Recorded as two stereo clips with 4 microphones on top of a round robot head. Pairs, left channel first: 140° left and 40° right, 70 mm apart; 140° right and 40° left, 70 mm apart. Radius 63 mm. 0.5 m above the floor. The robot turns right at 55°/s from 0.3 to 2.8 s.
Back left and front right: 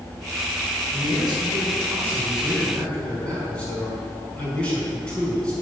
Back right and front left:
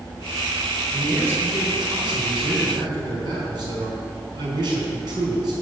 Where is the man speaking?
45° right, 4 m; by 5.5 s 60° left, 4 m.